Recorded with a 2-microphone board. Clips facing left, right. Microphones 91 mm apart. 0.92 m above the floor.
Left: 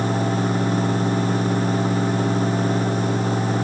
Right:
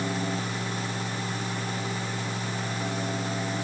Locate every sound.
Only background noise.